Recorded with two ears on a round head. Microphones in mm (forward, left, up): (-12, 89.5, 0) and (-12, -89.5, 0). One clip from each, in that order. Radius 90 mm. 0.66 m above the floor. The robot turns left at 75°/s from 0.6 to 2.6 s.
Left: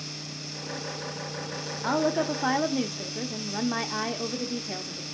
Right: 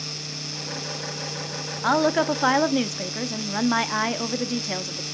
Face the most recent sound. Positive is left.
turn(degrees=-110)